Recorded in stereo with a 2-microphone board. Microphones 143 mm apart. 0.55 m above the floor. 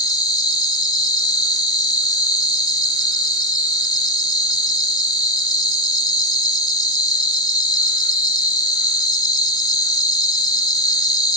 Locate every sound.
0.0 s an insect: 30° left (ahead or behind), 0.8 m